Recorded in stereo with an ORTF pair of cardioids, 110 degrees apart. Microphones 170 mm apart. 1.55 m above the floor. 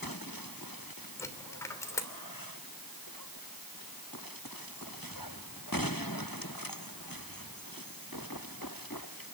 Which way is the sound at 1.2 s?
15° left.